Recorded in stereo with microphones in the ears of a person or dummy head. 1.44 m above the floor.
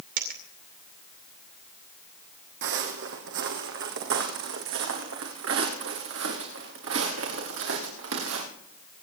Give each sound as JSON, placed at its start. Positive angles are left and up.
{"t": 0.2, "sound": "a dropped coin", "side_deg": -50, "distance_m": 2.5}
{"t": 2.6, "sound": "footsteps", "side_deg": -60, "distance_m": 3.0}